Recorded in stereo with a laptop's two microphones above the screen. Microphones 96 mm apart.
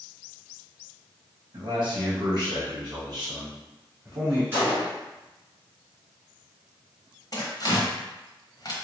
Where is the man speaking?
60° right (ahead or behind), 1.0 m; by 4.4 s 30° right (ahead or behind), 2 m.